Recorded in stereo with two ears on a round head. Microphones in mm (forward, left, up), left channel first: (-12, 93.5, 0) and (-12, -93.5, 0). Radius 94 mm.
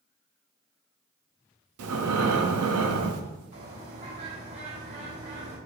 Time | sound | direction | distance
1.8 | breathing | 85° right | 0.7 m
3.5 | a bird | 65° right (ahead or behind) | 3 m